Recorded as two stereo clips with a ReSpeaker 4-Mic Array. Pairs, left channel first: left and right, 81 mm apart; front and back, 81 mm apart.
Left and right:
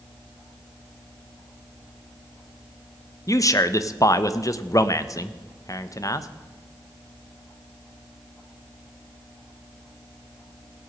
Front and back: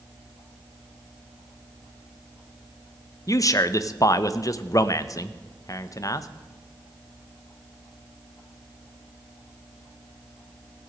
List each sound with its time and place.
3.3 s a man speaking: 45° left, 0.7 m